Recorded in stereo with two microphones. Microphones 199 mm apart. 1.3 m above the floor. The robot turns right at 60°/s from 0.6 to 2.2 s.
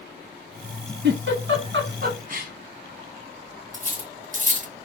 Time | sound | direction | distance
1.0 | a giggle | 65° right (ahead or behind) | 1.0 m
3.7 | cutlery clinking | 40° right (ahead or behind) | 0.6 m